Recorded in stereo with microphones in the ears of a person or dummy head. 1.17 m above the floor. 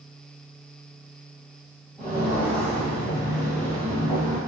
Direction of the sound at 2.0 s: 5° left (ahead or behind).